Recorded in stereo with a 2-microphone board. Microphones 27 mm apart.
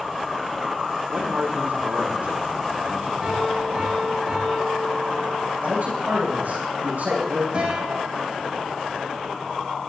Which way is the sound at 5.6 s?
80° right.